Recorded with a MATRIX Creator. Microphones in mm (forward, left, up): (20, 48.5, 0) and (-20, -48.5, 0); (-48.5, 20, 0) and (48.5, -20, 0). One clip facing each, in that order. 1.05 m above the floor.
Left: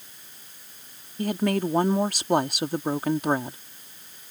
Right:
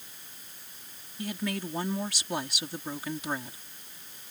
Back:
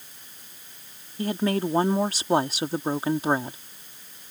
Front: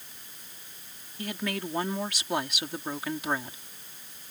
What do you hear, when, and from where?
1.2 s a woman speaking: 105° left